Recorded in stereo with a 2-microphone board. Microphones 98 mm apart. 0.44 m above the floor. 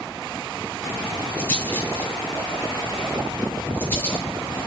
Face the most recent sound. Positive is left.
turn(degrees=25)  # may be behind; listen again after turning